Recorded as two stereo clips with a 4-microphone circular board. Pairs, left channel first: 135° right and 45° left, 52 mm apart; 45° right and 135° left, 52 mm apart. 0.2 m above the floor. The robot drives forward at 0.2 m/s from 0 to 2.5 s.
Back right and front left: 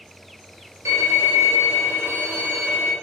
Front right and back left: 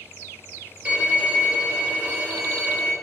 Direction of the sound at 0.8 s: 65° left.